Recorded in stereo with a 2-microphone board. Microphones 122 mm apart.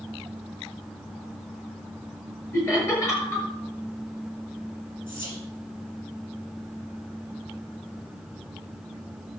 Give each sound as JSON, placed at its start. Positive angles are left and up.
{"t": 2.5, "sound": "laughter", "side_deg": 25, "distance_m": 6.5}
{"t": 5.1, "sound": "whispering", "side_deg": 45, "distance_m": 6.5}